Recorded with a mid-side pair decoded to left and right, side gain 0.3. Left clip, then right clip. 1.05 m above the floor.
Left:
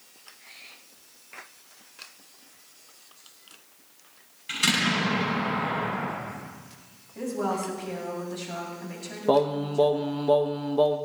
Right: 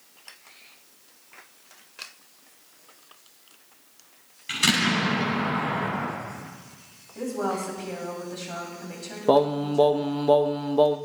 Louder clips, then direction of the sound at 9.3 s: Right 2 dB; 35° right.